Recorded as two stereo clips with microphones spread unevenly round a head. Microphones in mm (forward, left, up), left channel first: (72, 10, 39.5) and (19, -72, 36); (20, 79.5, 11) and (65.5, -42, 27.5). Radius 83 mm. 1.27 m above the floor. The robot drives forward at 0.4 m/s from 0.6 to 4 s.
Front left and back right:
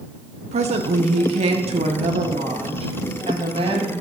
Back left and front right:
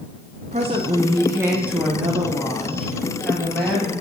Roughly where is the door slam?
No door slam in this recording.